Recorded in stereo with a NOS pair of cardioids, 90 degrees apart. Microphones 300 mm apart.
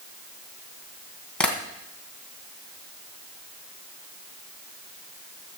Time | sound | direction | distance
1.4 | tapping | 5° left | 3 m